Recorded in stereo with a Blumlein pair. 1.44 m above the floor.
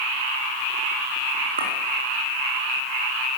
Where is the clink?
70° right, 2.5 m.